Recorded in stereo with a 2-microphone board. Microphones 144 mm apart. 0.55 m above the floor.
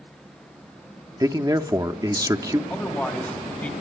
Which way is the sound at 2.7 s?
10° left (ahead or behind).